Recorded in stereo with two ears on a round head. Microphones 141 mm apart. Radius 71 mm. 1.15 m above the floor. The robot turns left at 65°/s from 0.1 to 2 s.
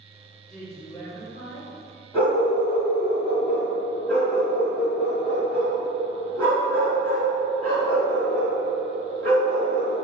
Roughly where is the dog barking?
Centre.